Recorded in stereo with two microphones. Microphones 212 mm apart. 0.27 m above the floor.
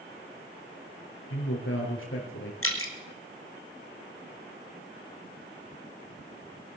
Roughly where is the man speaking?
Left.